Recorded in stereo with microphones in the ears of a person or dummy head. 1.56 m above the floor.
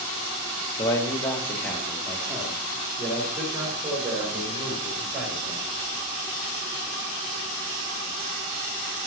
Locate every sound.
0.8 s a man speaking: 25° left (ahead or behind), 1.2 m; by 5.7 s 5° right (ahead or behind), 7 m